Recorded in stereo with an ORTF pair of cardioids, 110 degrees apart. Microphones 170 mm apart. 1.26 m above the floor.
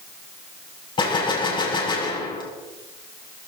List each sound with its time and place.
1.0 s a gunshot: 30° left, 6 m